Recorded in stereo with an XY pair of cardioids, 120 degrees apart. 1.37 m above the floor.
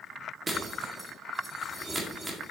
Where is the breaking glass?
15° right, 2.0 m.